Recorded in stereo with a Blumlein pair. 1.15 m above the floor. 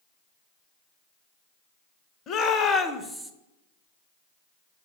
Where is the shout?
30° left, 0.8 m; by 3.3 s 10° right, 0.5 m.